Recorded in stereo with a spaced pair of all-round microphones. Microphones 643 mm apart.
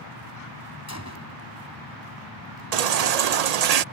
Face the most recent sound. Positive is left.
turn(degrees=-75)  # may be behind; listen again after turning